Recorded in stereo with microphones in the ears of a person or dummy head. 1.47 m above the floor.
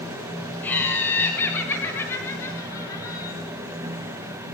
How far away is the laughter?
About 9 m.